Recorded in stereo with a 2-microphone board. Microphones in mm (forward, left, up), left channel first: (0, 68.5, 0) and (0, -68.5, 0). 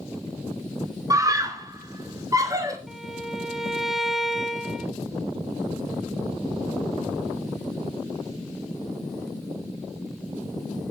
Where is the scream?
25° right (ahead or behind), 4 m.